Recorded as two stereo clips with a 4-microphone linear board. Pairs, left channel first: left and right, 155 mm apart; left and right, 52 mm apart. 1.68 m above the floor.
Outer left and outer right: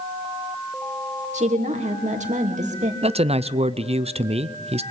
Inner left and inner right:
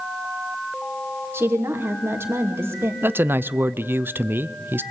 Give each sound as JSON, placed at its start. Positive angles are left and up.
{"t": 1.3, "sound": "a woman speaking", "side_deg": -50, "distance_m": 2.5}
{"t": 3.0, "sound": "a woman speaking", "side_deg": -40, "distance_m": 0.6}